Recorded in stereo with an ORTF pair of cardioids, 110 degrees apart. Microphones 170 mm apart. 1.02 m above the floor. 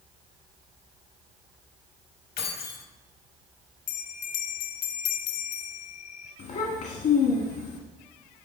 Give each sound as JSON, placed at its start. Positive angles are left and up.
{"t": 2.4, "sound": "keys jangling", "azimuth_deg": 65, "distance_m": 1.3}
{"t": 3.9, "sound": "a bell", "azimuth_deg": 70, "distance_m": 0.8}
{"t": 6.4, "sound": "a child speaking", "azimuth_deg": 60, "distance_m": 1.4}